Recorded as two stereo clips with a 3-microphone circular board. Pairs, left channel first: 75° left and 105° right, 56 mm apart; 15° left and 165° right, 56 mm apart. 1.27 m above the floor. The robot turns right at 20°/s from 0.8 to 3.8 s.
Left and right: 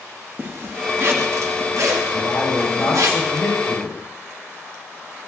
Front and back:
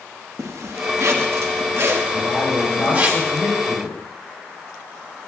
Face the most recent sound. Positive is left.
turn(degrees=60)